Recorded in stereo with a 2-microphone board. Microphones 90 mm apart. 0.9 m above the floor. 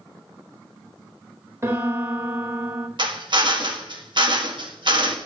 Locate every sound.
1.6 s a piano: 30° right (ahead or behind), 1.6 m
3.0 s a drill: 55° right (ahead or behind), 1.6 m